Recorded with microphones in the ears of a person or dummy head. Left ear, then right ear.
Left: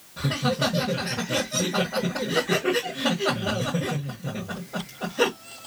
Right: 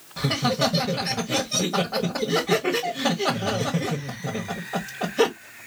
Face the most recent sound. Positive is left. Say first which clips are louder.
# right 2 dB
turn(degrees=-40)  # may be behind; listen again after turning